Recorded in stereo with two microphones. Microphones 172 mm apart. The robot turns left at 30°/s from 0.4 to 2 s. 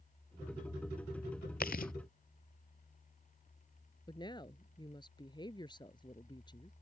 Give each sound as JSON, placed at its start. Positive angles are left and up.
{"t": 1.6, "sound": "chewing", "side_deg": 65}
{"t": 4.1, "sound": "a woman speaking", "side_deg": 25}